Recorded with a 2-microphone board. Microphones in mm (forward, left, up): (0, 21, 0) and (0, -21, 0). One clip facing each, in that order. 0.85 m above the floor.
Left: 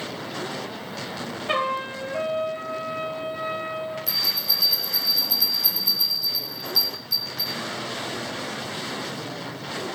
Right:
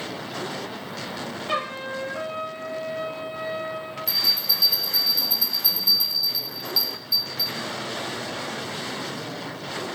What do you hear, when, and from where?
1.5 s a trumpet: 35° left (ahead or behind), 4 m
4.1 s a bell: 85° left, 5.5 m